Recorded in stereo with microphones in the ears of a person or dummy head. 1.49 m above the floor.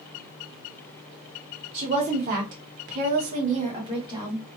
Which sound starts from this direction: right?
A woman speaking, at 1.7 s.